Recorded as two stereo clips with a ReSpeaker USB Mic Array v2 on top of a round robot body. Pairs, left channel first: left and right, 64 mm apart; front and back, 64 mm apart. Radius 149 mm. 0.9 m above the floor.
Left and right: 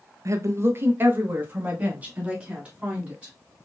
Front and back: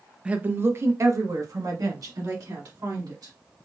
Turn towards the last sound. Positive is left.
turn(degrees=-160)